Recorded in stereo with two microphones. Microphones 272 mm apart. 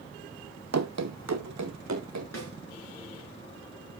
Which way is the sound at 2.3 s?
70° left (ahead or behind).